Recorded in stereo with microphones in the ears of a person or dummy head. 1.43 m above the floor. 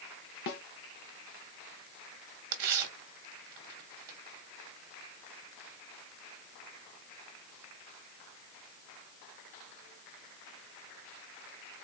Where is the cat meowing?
No cat meowing in this recording.